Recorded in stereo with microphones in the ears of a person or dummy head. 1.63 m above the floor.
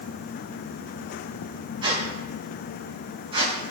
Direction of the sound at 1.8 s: 30° right (ahead or behind).